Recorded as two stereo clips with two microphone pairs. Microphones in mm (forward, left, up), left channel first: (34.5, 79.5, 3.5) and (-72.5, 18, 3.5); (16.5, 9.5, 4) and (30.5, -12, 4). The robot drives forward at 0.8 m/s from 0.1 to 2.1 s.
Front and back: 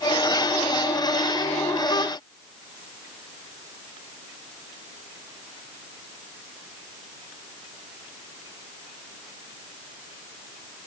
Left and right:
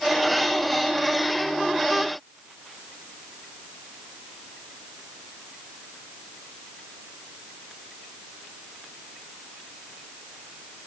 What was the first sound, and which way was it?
Only background noise.